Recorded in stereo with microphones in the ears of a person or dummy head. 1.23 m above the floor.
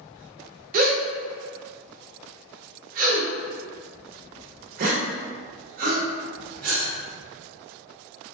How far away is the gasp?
About 0.6 m.